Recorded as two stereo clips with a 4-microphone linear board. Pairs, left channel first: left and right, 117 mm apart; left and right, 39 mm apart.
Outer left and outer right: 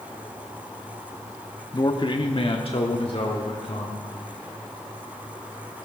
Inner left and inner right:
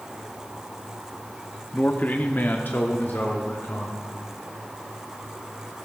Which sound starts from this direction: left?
A man speaking, at 1.7 s.